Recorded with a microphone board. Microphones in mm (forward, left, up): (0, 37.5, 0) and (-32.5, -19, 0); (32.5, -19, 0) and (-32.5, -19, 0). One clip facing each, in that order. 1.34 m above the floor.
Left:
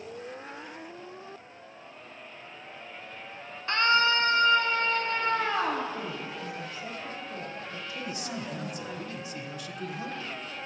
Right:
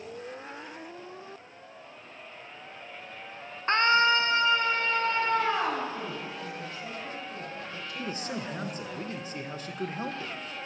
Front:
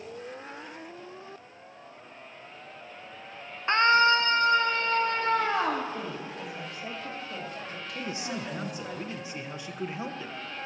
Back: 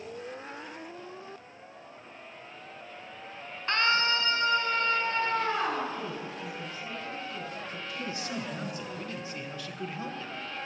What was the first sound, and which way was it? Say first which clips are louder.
A scream: right 1 dB, front 6 dB; 65° right.